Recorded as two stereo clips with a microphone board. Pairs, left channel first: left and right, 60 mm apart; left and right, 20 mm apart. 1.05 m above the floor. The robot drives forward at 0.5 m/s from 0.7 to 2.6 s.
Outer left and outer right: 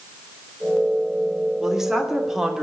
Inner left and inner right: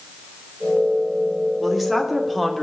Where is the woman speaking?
5° right (ahead or behind), 3 m; by 2.6 s 10° right (ahead or behind), 2.5 m.